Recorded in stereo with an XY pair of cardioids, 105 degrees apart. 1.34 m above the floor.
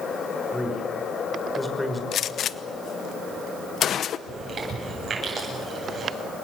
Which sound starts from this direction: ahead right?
Chewing, at 4.3 s.